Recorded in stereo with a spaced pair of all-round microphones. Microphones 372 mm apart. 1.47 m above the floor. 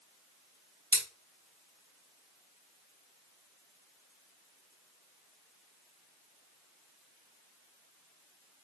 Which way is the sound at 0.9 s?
65° right (ahead or behind).